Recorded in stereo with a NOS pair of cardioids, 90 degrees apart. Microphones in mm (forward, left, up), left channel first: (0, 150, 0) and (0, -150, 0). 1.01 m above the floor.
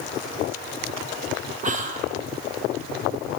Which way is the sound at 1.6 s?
25° right.